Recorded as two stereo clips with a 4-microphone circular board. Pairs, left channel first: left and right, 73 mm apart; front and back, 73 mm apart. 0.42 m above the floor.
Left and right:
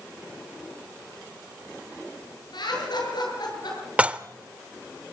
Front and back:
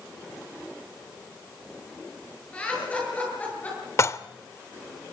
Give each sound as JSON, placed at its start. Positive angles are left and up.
{"t": 2.5, "sound": "laughter", "azimuth_deg": 75, "distance_m": 7.5}
{"t": 4.0, "sound": "dishes clattering", "azimuth_deg": -25, "distance_m": 0.7}